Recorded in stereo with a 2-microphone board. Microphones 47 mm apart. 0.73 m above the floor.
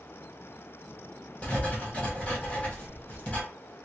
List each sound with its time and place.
1.4 s writing: 25° left (ahead or behind), 1.2 m